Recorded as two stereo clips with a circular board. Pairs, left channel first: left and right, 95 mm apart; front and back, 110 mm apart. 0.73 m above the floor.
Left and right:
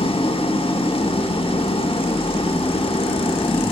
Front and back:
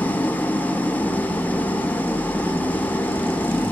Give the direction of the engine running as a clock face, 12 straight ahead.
9 o'clock.